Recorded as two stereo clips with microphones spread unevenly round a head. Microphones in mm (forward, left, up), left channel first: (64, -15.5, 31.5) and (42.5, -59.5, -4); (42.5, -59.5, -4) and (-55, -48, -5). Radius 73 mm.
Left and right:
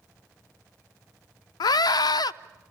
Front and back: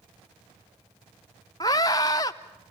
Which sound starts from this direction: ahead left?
A scream, at 1.6 s.